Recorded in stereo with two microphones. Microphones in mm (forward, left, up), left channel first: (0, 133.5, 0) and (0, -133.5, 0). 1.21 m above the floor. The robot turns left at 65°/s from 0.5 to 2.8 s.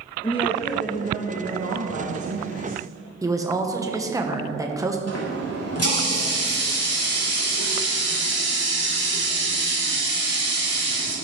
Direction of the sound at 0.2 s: 20° left.